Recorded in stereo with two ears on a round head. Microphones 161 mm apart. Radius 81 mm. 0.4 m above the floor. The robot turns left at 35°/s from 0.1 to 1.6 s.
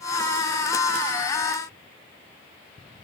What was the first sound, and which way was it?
Only background noise.